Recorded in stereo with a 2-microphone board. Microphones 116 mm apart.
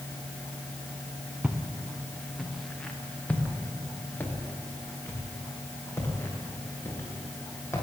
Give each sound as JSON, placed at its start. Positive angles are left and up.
{"t": 1.4, "sound": "footsteps", "side_deg": -10, "distance_m": 2.5}